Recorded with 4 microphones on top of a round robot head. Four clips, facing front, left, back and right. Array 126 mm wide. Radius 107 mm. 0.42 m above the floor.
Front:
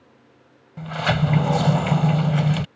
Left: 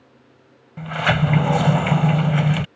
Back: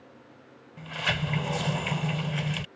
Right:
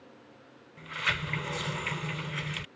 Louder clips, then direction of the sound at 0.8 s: Left 14 dB, front 9 dB; 60° left.